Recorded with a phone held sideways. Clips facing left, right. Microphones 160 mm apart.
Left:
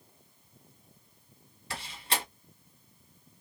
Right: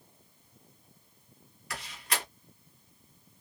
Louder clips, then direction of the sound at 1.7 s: Left 2 dB; 30° left (ahead or behind).